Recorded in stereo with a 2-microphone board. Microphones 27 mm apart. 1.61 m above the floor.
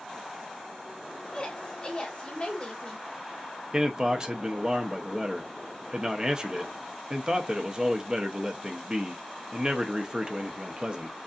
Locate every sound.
1.2 s a woman speaking: 35° left (ahead or behind), 1.6 m
3.7 s a man speaking: 25° right (ahead or behind), 0.7 m